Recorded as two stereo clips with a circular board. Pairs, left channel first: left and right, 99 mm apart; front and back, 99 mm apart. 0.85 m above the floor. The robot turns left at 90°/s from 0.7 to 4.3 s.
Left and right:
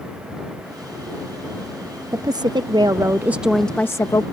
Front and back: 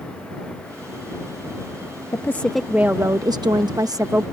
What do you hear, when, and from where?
2.1 s a woman speaking: 50° right; by 4.2 s 120° left